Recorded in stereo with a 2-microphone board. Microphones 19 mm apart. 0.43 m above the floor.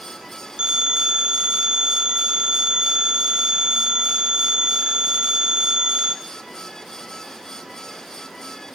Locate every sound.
0.6 s a phone ringing: 55° right (ahead or behind), 2.5 m